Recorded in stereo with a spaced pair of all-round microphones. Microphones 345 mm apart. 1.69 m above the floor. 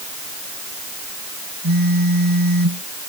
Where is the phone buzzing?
80° right.